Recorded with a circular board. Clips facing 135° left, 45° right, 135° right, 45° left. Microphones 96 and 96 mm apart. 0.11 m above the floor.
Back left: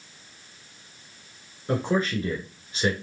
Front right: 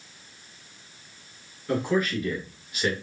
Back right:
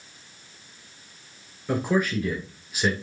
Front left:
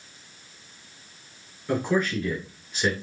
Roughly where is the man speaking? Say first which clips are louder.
Even, even; behind left.